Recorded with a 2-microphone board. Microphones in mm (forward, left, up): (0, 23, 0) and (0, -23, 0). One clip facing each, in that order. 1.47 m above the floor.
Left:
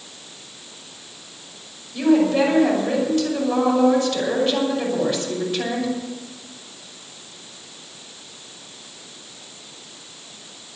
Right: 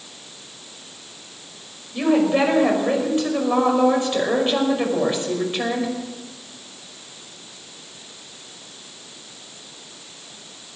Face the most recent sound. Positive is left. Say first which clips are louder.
# left 1 dB
turn(degrees=-25)  # may be behind; listen again after turning